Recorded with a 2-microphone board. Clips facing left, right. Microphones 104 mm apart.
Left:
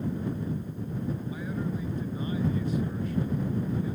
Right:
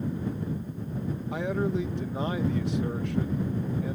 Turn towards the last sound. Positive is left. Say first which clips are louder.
# right 5 dB
turn(degrees=-75)  # may be behind; listen again after turning